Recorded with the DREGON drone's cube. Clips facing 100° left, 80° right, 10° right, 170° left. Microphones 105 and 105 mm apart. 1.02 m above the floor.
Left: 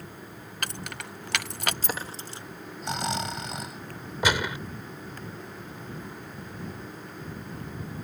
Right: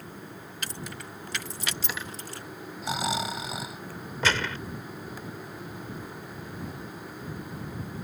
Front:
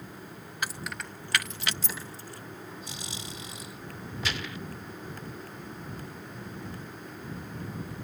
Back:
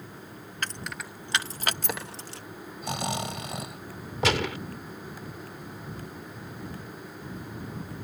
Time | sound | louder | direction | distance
0.6 | keys jangling | left 3 dB, even | 70° left | ?
2.8 | snoring | right 1 dB, back 11 dB | 165° right | ?
4.2 | a gunshot | left 2 dB, back 11 dB | 175° left | ?